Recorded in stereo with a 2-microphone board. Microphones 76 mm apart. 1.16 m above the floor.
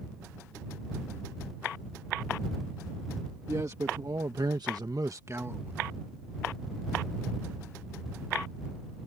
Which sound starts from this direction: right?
A man speaking, at 3.5 s.